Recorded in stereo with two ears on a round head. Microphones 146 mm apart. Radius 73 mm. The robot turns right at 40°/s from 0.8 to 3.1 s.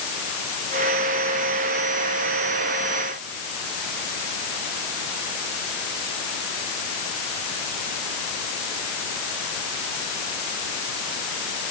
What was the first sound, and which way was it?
Only background noise.